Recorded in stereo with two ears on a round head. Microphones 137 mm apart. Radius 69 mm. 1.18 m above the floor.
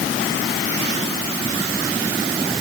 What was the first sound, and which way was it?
Only background noise.